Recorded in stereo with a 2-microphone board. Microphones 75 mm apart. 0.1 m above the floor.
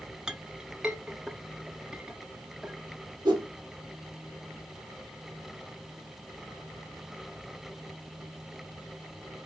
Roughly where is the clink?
Centre.